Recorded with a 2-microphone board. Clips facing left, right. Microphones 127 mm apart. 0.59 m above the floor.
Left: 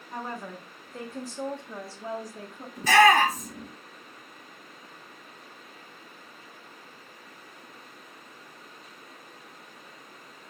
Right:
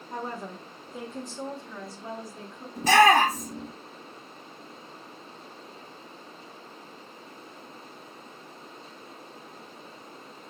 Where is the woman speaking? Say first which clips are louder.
Right 1 dB; 35° right (ahead or behind), 1.4 m; by 2.7 s 50° left (ahead or behind), 1.7 m.